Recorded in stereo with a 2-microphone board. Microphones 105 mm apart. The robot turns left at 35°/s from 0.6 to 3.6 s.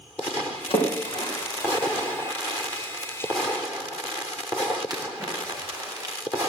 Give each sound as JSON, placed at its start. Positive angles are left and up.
{"t": 0.7, "sound": "a splash", "side_deg": 65, "distance_m": 5.5}